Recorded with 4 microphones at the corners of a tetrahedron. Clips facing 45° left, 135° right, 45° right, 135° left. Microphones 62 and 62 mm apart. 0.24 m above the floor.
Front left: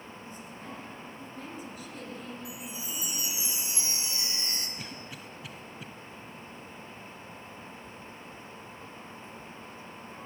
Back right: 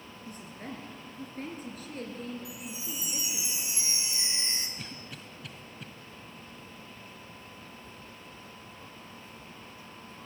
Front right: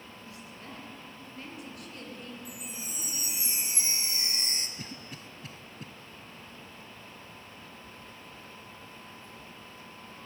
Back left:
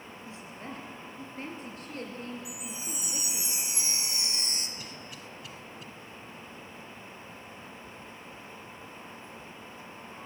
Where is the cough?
40° right, 1.2 m.